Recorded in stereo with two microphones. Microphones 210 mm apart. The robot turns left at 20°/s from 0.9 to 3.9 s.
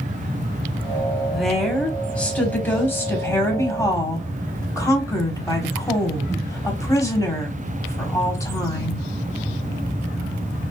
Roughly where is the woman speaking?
Centre.